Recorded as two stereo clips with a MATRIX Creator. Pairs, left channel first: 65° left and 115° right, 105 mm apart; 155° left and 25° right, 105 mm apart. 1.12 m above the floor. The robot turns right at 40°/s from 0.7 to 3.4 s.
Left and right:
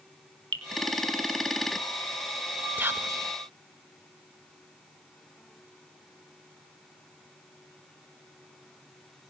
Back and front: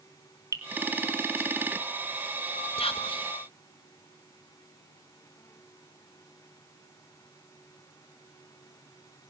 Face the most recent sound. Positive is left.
turn(degrees=-160)